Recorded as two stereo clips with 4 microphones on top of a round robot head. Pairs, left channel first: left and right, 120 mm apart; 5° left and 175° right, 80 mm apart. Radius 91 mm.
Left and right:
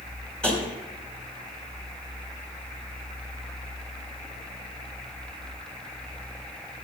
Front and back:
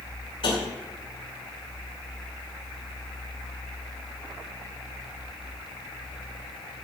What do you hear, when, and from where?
0.4 s tapping: 10° left, 4.5 m